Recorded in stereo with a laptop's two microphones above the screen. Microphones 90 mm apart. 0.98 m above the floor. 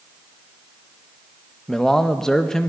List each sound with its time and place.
1.7 s a man speaking: 5° left (ahead or behind), 0.7 m